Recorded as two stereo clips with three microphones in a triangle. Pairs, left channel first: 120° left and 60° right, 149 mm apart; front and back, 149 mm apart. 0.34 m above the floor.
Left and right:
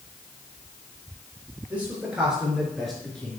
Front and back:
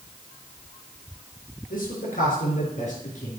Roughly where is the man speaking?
Ahead.